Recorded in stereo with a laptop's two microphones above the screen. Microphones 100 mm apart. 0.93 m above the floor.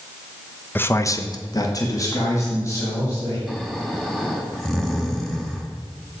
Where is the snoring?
5° left (ahead or behind), 2 m.